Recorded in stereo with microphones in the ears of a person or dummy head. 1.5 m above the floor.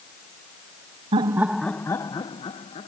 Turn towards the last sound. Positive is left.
turn(degrees=35)  # may be behind; listen again after turning